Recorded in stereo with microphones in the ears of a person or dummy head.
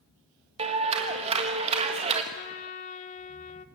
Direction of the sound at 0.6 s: 35° right (ahead or behind).